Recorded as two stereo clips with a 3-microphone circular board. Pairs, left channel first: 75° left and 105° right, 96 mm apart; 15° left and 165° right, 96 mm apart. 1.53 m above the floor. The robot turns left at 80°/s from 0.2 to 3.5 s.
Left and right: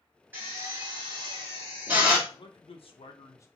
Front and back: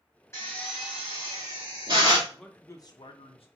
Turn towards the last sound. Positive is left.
turn(degrees=10)